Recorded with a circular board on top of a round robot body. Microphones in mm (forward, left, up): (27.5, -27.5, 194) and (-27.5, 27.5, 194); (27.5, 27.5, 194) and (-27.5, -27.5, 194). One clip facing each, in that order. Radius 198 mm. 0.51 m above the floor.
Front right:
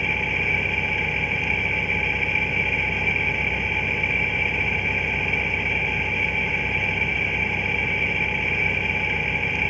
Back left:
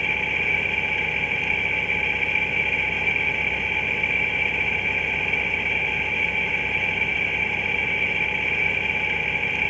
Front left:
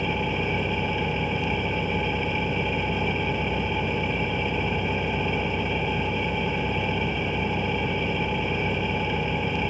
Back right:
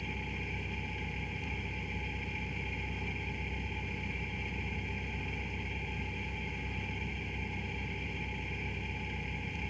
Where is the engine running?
40° left.